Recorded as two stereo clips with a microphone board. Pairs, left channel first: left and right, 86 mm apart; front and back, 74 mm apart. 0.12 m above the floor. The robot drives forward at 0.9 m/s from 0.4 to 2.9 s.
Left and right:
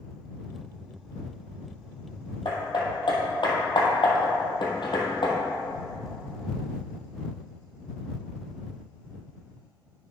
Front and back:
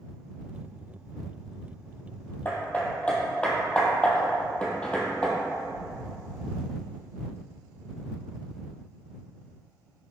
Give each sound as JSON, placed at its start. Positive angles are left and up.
{"t": 2.5, "sound": "hammering", "azimuth_deg": 60, "distance_m": 1.7}